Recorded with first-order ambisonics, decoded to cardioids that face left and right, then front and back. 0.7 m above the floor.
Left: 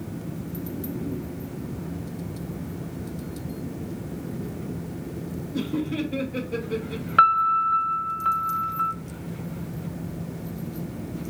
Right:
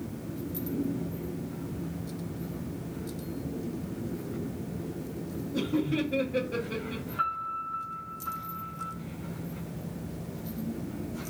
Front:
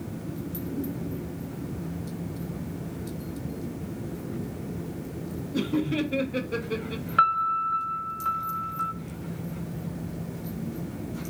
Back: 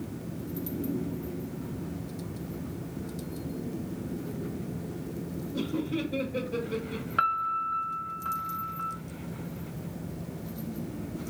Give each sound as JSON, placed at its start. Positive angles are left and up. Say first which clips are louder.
{"t": 5.5, "sound": "laughter", "louder": "left 1 dB, front 5 dB", "azimuth_deg": -5, "distance_m": 0.8}
{"t": 7.2, "sound": "a piano", "louder": "left 14 dB, front 5 dB", "azimuth_deg": 80, "distance_m": 0.6}